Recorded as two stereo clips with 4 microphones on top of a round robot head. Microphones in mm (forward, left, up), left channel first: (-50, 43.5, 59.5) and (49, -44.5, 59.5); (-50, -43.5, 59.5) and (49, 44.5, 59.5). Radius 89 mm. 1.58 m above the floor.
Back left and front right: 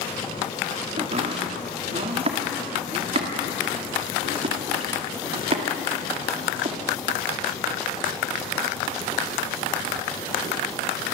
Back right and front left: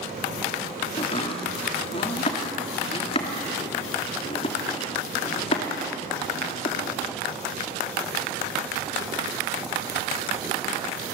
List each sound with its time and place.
1.0 s chopping: 90° right, 2 m